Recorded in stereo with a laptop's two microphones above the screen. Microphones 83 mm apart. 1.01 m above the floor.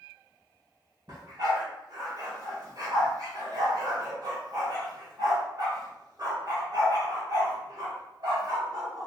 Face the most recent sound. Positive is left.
turn(degrees=-55)  # may be behind; listen again after turning